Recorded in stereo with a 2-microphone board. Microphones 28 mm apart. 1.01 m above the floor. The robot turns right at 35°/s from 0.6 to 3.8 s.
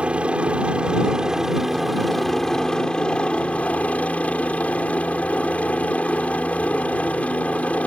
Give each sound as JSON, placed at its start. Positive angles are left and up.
{"t": 0.0, "sound": "a helicopter", "azimuth_deg": -50}